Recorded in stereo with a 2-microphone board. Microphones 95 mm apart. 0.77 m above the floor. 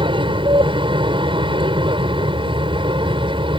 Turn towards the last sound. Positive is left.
turn(degrees=-60)  # may be behind; listen again after turning